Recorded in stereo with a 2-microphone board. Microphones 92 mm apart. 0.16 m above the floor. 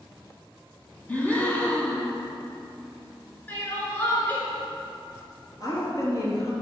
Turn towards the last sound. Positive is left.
turn(degrees=40)  # may be behind; listen again after turning